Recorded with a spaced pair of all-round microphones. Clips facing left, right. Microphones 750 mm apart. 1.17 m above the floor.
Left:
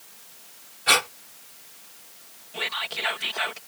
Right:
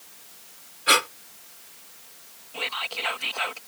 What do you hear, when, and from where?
0.9 s breathing: 30° left (ahead or behind)
2.5 s whispering: 50° left (ahead or behind)